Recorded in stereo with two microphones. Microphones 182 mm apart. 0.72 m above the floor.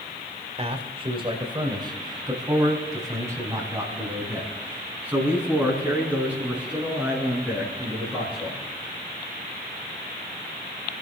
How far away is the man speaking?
About 2.5 m.